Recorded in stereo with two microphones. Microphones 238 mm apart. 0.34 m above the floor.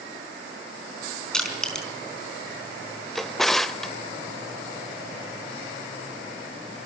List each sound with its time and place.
1.3 s crushing: 5° left (ahead or behind), 4 m
3.1 s a drawer: centre (ahead or behind), 0.7 m